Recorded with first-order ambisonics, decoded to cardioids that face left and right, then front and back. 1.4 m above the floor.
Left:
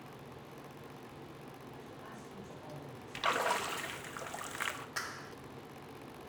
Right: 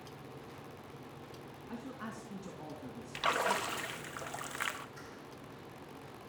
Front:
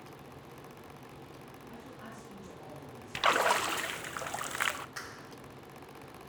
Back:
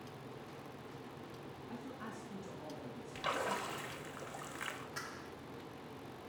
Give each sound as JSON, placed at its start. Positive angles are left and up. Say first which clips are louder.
{"t": 1.7, "sound": "a man speaking", "louder": "right 8 dB, back 1 dB", "azimuth_deg": -95, "distance_m": 3.0}
{"t": 3.1, "sound": "a splash", "louder": "even, front 11 dB", "azimuth_deg": 0, "distance_m": 0.8}
{"t": 5.0, "sound": "a clap", "louder": "left 8 dB, front 2 dB", "azimuth_deg": 75, "distance_m": 0.8}